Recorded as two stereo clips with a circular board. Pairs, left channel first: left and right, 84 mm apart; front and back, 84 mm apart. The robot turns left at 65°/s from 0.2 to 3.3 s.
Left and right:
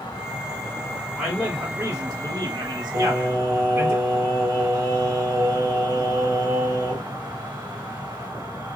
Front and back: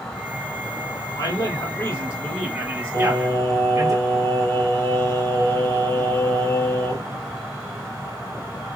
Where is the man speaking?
15° right, 1.8 m; by 3.9 s 155° right, 1.8 m.